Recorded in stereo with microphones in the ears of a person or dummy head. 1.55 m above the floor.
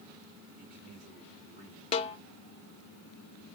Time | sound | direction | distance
0.6 | a man speaking | 45° right (ahead or behind) | 3.5 m
1.9 | a snare drum | 30° left (ahead or behind) | 0.5 m